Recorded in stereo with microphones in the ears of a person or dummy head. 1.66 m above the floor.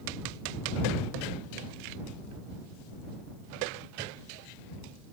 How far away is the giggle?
No giggle in this recording.